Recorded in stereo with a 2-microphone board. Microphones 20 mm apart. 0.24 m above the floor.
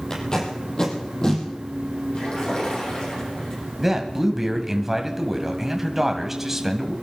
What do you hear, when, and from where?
0.1 s tape being pulled: 30° left (ahead or behind), 4.5 m
2.1 s a splash: 55° left (ahead or behind), 8.5 m
3.8 s a man speaking: 15° right (ahead or behind), 1.6 m